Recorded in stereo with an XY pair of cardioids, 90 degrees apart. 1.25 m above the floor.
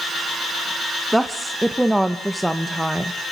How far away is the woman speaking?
About 0.9 m.